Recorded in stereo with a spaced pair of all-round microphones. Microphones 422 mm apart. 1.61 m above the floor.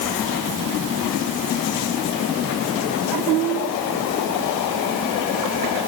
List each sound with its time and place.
Only background noise.